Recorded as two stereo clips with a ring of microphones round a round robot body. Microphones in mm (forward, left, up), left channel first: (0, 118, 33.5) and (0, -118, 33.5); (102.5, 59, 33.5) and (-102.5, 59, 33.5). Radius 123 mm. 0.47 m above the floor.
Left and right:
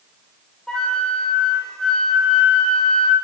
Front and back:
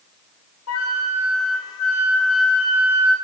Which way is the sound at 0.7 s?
5° left.